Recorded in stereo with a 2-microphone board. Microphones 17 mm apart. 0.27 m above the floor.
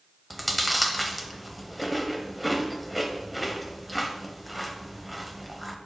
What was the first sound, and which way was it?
Chewing, 5° right (ahead or behind).